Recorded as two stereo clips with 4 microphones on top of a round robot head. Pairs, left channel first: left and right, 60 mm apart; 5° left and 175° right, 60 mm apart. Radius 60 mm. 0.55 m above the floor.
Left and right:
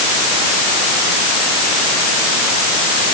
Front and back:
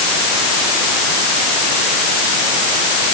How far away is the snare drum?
I don't hear a snare drum.